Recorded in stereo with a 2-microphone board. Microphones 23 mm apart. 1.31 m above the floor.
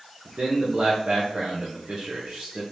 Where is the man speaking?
45° right (ahead or behind), 1.1 m.